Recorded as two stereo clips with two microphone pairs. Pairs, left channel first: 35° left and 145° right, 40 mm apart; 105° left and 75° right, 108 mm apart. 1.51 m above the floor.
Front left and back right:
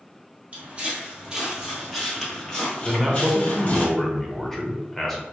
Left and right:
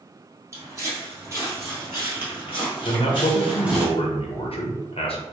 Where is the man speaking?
115° left, 0.7 m.